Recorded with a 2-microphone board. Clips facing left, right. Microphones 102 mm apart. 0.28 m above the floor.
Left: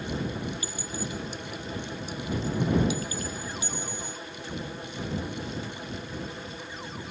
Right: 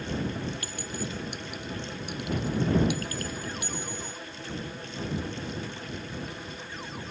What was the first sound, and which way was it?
A clink, 65° right (ahead or behind).